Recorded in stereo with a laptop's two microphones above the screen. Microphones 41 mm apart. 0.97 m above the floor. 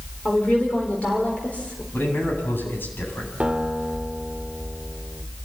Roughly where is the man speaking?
Left.